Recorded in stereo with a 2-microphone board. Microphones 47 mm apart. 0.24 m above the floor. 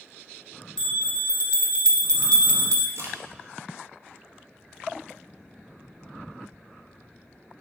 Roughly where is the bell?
Centre.